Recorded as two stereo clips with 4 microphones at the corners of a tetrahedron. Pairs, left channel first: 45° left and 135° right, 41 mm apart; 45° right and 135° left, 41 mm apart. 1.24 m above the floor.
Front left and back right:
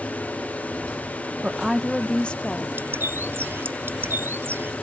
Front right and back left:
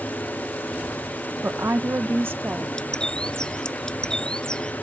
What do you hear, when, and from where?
1.4 s a woman speaking: 165° left; by 2.7 s 95° left
2.8 s a bird: 115° right